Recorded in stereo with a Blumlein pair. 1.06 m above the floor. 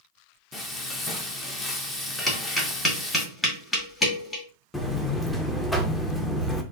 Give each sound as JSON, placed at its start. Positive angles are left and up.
{"t": 0.5, "sound": "frying", "azimuth_deg": 20, "distance_m": 0.7}
{"t": 2.3, "sound": "tapping", "azimuth_deg": 20, "distance_m": 1.4}
{"t": 4.7, "sound": "a buzzer", "azimuth_deg": 5, "distance_m": 0.6}